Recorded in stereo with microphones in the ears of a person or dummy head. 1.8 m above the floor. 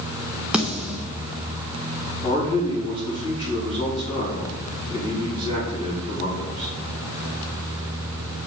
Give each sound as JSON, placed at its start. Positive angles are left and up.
{"t": 0.5, "sound": "a snare drum", "side_deg": -5, "distance_m": 0.8}
{"t": 2.2, "sound": "a man speaking", "side_deg": 30, "distance_m": 4.0}